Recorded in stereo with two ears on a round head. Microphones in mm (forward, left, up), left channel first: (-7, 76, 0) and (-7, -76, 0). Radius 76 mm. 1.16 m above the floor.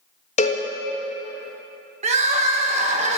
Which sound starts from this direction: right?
Crying, at 2.0 s.